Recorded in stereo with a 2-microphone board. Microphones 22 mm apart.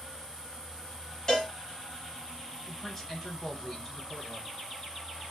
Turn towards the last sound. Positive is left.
turn(degrees=20)  # may be behind; listen again after turning